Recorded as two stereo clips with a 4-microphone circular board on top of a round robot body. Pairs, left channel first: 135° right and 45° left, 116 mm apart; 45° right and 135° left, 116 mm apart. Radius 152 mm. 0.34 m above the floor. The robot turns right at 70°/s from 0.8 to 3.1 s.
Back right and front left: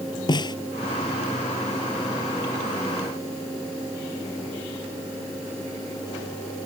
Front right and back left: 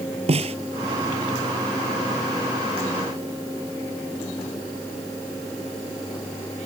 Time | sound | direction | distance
0.3 | a snare drum | 170° left | ?